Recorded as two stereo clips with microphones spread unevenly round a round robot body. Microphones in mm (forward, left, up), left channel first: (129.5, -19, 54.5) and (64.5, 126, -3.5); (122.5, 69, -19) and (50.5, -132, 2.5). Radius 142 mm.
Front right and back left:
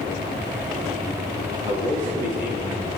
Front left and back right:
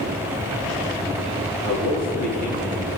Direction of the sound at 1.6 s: 85° left.